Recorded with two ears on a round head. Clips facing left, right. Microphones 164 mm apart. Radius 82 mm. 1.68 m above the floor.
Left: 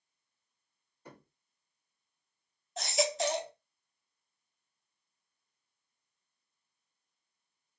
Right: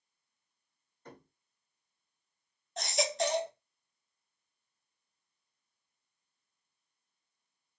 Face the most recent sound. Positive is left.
turn(degrees=0)  # may be behind; listen again after turning